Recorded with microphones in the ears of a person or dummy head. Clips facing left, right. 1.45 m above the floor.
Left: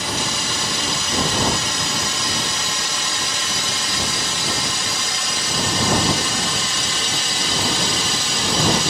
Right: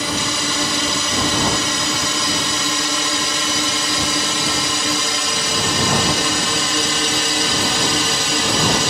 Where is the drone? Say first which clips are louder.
Right 3 dB; 65° right (ahead or behind); by 8.9 s 55° right (ahead or behind).